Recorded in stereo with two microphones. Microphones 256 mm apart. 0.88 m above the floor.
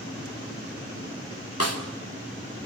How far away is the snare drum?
About 2.5 m.